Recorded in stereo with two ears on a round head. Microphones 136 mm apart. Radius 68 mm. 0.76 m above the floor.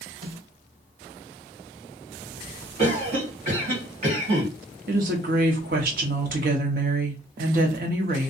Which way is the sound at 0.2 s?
55° right (ahead or behind).